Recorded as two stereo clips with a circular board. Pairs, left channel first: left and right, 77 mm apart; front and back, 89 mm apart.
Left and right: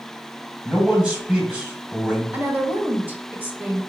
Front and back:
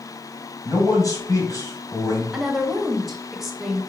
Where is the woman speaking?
100° right, 1.0 m.